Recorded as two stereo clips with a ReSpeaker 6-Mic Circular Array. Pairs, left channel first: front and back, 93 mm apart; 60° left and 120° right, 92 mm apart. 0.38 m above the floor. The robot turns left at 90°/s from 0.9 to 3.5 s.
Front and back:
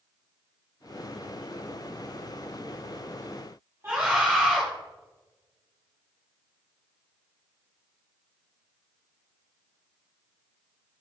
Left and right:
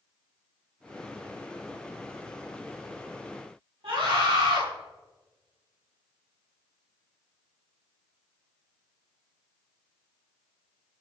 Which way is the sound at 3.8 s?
115° right.